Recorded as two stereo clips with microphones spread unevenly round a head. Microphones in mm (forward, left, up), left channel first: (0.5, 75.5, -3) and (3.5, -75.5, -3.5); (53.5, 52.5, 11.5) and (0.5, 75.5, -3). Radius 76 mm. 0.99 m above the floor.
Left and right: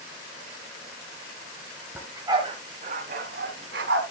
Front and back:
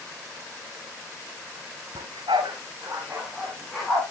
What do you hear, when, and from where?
1.9 s a dog barking: 170° right, 2 m; by 4.0 s 105° right, 3.5 m